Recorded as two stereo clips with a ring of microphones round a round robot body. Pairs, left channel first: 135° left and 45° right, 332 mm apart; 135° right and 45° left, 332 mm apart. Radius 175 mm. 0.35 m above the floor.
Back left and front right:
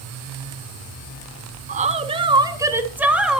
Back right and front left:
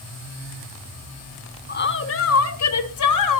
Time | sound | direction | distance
1.7 | a woman speaking | 95° right | 1.0 m